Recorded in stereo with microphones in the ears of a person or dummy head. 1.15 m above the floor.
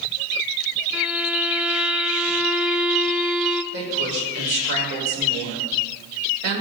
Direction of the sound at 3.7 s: 65° right (ahead or behind).